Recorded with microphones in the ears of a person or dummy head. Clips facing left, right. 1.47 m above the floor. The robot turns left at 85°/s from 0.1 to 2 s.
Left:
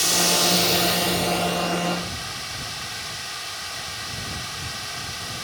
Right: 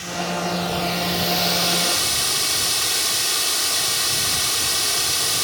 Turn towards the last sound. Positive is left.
turn(degrees=-80)